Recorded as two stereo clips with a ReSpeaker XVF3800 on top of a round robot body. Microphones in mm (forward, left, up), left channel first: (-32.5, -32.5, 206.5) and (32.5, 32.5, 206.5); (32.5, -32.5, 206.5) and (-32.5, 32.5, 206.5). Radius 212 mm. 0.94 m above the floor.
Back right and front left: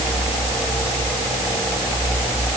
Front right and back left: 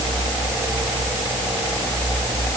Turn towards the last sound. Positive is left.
No sound to turn to.